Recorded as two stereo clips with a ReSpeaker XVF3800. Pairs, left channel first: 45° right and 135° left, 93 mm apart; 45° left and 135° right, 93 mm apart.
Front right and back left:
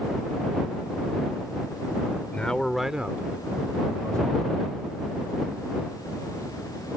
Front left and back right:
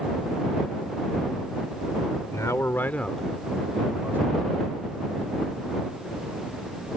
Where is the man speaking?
20° left; by 4.7 s 170° left.